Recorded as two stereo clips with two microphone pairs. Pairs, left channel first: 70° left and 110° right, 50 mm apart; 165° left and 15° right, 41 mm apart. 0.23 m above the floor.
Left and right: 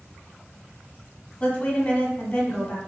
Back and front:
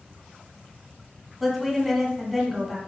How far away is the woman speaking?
About 1.2 m.